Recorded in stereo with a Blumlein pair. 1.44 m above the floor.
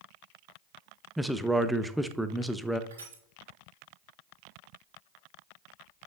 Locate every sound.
1.2 s a man speaking: straight ahead, 0.6 m
2.9 s crushing: 65° right, 3 m